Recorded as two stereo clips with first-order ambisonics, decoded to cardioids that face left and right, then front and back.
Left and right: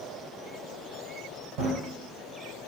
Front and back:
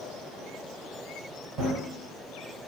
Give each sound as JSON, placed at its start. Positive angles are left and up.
{"t": 1.6, "sound": "running footsteps", "azimuth_deg": -105, "distance_m": 1.9}